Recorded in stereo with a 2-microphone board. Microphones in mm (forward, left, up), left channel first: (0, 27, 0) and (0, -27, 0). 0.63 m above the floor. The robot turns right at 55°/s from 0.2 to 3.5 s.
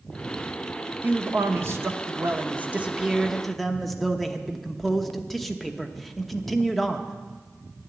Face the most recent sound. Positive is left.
turn(degrees=5)